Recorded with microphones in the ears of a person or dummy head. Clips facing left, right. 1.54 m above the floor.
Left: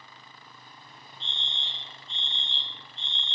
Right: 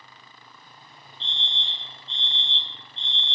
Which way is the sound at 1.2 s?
5° left (ahead or behind).